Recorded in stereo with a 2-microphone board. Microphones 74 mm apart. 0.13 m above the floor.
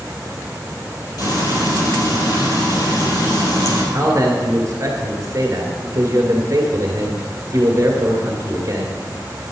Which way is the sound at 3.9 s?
45° right (ahead or behind).